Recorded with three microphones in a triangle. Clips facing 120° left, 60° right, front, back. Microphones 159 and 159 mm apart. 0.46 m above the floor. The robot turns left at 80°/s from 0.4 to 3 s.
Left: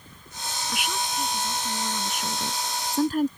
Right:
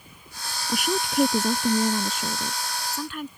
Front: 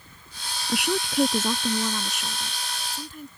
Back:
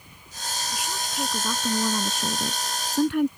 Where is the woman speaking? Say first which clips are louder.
Right 6 dB, front 11 dB; 5° right; by 3.3 s 170° left.